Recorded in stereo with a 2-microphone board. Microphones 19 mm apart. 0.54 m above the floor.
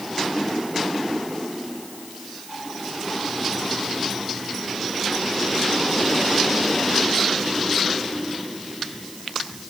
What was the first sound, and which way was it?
Only background noise.